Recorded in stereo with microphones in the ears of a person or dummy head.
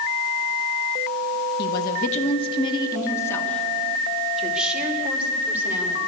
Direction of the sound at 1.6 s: 55° left (ahead or behind).